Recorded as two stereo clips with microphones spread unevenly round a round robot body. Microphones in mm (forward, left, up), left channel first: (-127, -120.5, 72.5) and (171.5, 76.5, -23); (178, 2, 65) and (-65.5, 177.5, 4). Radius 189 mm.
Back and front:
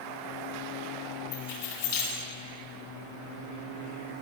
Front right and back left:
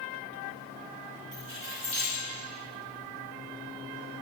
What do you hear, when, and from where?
1.3 s keys jangling: 125° right, 3.5 m